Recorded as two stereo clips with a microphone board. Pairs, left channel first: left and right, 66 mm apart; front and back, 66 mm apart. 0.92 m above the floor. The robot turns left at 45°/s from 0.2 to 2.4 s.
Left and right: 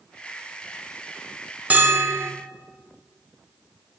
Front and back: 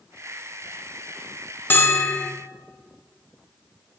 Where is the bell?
40° right, 0.6 m; by 2.3 s 65° right, 0.6 m.